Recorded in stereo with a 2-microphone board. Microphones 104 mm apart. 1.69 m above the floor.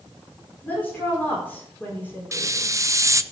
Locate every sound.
0.6 s a woman speaking: 15° left (ahead or behind), 4.5 m
2.3 s a hiss: 30° right (ahead or behind), 0.6 m